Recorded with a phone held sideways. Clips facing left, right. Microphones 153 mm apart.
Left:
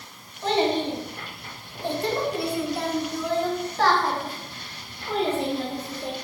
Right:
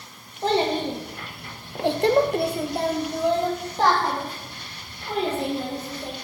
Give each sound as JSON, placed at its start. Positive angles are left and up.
{"t": 0.4, "sound": "a child speaking", "side_deg": -35, "distance_m": 0.9}